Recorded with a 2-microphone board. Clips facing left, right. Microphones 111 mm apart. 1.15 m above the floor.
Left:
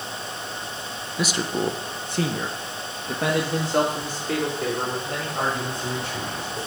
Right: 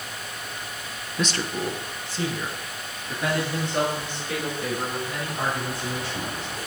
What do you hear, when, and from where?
1.2 s a man speaking: 5° left (ahead or behind), 0.8 m; by 6.6 s 70° left (ahead or behind), 5.5 m